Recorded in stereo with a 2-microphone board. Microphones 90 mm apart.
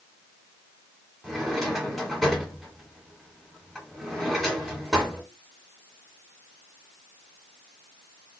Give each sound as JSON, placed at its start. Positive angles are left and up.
{"t": 1.2, "sound": "a drawer", "side_deg": 0, "distance_m": 1.5}